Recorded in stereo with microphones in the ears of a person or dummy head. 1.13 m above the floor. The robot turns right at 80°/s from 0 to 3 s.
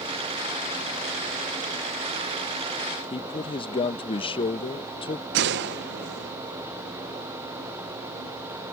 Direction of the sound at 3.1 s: 25° left (ahead or behind).